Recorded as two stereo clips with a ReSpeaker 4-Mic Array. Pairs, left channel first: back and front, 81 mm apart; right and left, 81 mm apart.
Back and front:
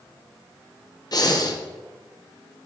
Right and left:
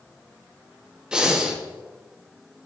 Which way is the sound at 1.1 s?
165° left.